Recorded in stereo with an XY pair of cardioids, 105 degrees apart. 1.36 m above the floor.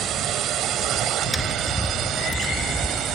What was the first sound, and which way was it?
A drone, 70° right.